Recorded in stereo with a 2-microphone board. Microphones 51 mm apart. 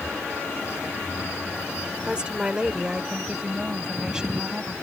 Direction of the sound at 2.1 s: 20° right (ahead or behind).